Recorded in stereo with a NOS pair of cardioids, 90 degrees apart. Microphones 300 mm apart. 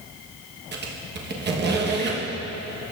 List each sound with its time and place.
0.7 s a squeak: 35° right, 1.1 m